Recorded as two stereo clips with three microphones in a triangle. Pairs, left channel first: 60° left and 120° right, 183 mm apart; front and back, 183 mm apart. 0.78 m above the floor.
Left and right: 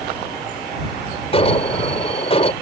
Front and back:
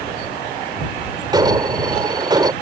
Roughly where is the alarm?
Behind left.